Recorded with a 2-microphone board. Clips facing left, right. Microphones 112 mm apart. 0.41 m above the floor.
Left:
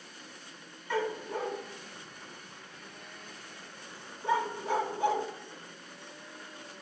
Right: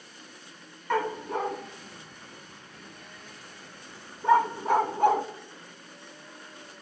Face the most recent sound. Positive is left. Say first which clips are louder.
# right 4 dB
turn(degrees=-55)  # may be behind; listen again after turning